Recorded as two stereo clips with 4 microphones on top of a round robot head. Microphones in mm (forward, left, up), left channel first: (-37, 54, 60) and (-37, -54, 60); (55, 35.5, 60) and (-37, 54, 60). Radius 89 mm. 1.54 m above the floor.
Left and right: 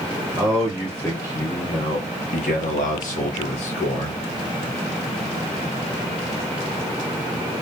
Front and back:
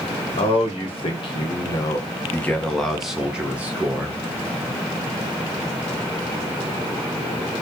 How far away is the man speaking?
About 1.2 m.